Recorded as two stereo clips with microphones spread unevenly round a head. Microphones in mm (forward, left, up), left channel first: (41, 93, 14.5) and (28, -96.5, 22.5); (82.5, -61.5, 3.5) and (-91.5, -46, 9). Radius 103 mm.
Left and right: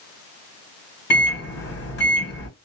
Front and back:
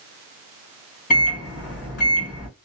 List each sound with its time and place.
1.1 s a microwave: 50° left, 1.4 m